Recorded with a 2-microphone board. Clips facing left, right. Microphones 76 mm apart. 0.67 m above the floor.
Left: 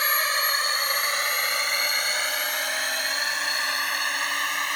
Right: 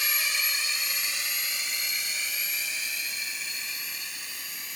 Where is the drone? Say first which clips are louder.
Left 7 dB; 45° left (ahead or behind); by 4.8 s 65° left (ahead or behind).